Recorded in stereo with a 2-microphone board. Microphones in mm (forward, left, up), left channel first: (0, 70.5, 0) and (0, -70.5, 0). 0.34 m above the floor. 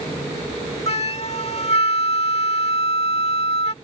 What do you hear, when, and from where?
0.9 s a flute: 50° left (ahead or behind)